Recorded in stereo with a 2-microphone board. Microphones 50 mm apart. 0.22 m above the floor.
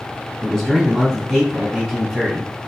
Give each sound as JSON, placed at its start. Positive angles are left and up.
{"t": 0.4, "sound": "a man speaking", "side_deg": 5, "distance_m": 1.4}